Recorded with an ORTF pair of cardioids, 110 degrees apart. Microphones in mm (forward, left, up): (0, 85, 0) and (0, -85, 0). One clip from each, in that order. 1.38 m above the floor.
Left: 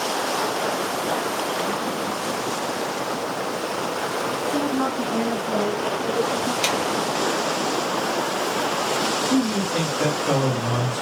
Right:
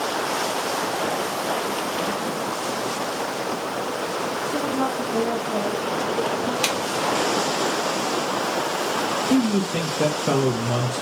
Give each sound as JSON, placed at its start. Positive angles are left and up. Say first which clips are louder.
{"t": 4.5, "sound": "a woman speaking", "louder": "even", "azimuth_deg": 10, "distance_m": 1.9}
{"t": 6.6, "sound": "a snare drum", "louder": "left 2 dB", "azimuth_deg": -10, "distance_m": 1.0}
{"t": 9.3, "sound": "a man speaking", "louder": "even", "azimuth_deg": -45, "distance_m": 1.8}